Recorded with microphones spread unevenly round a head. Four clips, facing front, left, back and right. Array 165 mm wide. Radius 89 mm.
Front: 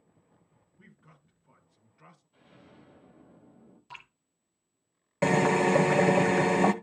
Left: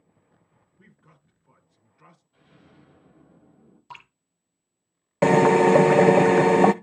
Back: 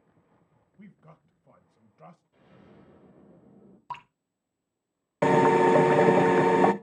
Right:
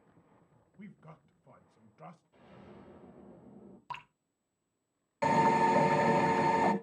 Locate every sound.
0.8 s a man speaking: 135° right, 2 m
2.3 s an explosion: 115° right, 7.5 m
3.9 s dripping: 170° right, 1.1 m
5.2 s a drill: 100° left, 0.7 m